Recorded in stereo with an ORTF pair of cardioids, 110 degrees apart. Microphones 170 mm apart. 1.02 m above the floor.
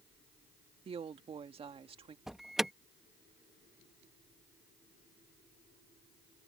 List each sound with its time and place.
0.8 s a woman speaking: 35° right
2.3 s an alarm: straight ahead